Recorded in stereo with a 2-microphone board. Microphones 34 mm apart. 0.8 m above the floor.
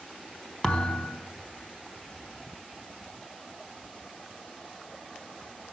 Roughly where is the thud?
Left.